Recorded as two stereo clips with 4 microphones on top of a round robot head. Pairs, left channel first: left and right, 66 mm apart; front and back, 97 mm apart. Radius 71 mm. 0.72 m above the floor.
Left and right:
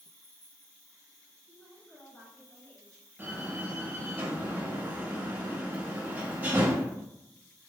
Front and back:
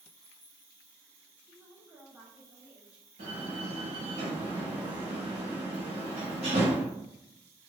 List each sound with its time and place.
0.0 s an insect: 145° left, 1.6 m
1.5 s a woman speaking: 120° left, 1.1 m
3.2 s a door slam: 155° right, 0.9 m